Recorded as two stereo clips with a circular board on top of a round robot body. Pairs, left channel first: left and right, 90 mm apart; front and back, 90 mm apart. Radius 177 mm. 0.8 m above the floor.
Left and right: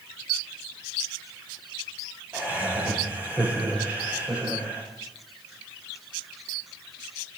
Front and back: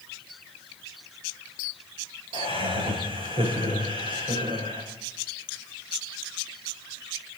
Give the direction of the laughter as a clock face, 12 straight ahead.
5 o'clock.